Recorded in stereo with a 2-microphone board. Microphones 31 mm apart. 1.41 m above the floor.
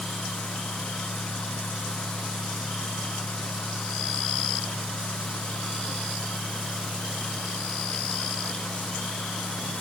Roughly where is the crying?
No crying in this recording.